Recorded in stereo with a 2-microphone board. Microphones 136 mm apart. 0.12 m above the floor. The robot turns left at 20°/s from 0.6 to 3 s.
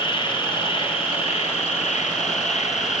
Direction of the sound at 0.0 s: 135° left.